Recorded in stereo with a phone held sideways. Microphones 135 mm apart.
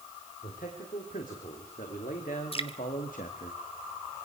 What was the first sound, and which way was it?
A man speaking, 90° left.